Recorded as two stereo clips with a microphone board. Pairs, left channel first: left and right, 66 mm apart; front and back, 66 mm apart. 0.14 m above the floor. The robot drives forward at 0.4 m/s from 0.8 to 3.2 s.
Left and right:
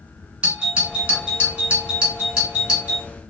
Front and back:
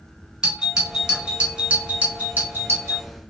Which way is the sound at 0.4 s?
120° right.